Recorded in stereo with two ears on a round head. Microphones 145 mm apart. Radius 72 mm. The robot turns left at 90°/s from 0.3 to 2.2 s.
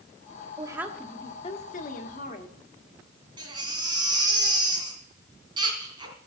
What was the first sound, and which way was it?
A woman speaking, 145° right.